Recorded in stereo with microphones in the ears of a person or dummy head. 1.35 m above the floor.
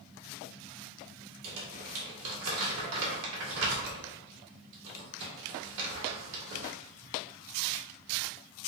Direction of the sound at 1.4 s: 70° right (ahead or behind).